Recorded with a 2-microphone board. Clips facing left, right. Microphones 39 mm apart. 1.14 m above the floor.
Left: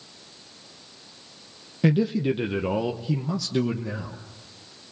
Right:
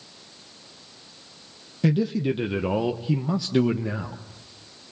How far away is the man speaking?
About 0.9 m.